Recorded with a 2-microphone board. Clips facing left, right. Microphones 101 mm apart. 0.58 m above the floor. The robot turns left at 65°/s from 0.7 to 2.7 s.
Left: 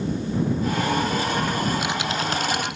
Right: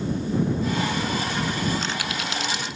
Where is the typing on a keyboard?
Straight behind; by 2.8 s 110° left.